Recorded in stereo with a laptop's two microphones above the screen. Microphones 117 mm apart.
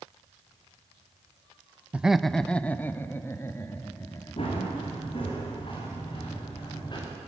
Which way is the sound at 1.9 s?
10° right (ahead or behind).